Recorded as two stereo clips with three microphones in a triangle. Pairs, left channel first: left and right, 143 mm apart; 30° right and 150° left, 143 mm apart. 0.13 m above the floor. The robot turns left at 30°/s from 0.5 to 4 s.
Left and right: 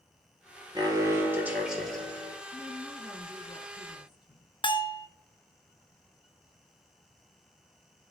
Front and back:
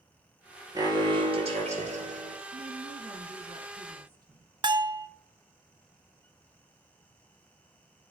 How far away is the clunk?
I don't hear a clunk.